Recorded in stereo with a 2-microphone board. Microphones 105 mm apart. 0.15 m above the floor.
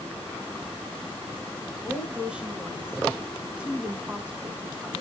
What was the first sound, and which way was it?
A woman speaking, 10° right (ahead or behind).